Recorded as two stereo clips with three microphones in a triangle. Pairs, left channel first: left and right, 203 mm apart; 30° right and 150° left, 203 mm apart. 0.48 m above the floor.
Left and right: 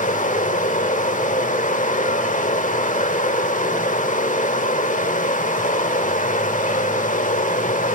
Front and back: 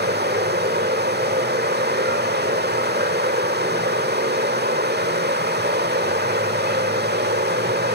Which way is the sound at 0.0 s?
130° left.